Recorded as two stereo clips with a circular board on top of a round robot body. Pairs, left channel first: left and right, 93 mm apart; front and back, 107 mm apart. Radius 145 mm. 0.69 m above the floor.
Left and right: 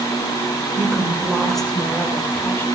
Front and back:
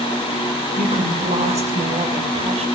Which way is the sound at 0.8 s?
170° right.